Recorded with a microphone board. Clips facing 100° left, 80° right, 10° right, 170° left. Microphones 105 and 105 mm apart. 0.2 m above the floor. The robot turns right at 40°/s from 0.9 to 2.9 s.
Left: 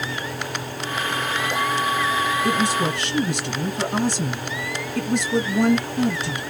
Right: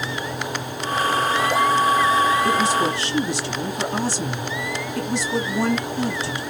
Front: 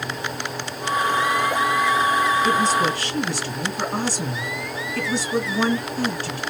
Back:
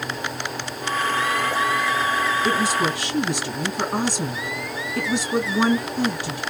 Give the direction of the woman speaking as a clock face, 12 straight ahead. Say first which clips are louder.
Right 2 dB, front 2 dB; 9 o'clock.